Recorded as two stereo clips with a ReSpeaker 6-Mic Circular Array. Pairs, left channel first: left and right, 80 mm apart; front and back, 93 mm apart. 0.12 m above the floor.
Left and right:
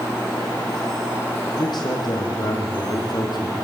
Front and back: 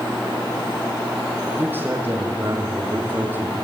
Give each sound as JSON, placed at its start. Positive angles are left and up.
{"t": 1.6, "sound": "a man speaking", "azimuth_deg": 115, "distance_m": 5.0}